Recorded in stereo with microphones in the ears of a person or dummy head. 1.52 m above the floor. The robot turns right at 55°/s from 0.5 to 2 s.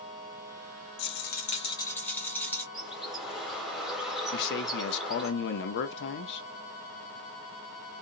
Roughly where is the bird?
Centre.